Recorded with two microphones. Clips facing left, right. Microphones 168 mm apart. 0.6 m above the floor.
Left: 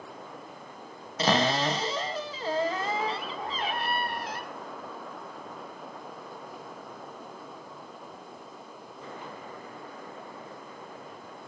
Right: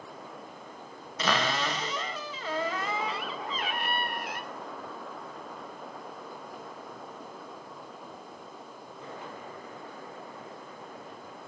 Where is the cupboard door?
30° left (ahead or behind), 1.0 m.